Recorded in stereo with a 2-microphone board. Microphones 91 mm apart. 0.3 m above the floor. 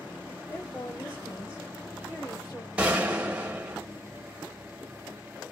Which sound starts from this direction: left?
A woman speaking, at 0.5 s.